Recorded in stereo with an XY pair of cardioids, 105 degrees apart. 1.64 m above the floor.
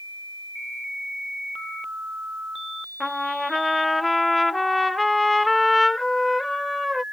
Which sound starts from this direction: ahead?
A trumpet, at 3.0 s.